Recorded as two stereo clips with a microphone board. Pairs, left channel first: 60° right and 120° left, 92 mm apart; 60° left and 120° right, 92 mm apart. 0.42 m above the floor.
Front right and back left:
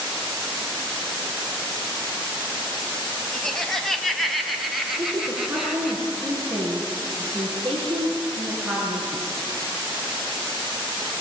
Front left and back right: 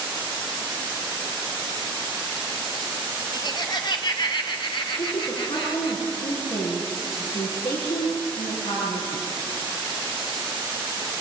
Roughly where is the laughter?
Ahead left.